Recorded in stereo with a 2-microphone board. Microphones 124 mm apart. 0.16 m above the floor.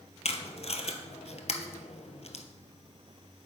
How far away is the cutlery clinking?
No cutlery clinking in this recording.